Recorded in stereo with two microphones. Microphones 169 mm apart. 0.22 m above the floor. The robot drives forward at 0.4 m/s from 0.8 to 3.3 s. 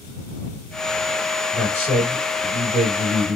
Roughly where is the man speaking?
Right.